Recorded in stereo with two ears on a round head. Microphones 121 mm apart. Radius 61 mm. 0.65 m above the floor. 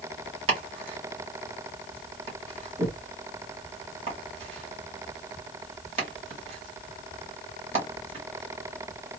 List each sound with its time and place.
0.5 s chopping: 45° right (ahead or behind), 1.8 m